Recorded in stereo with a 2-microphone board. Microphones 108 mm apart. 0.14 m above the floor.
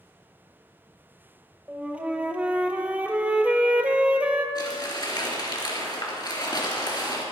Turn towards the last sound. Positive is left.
turn(degrees=40)  # may be behind; listen again after turning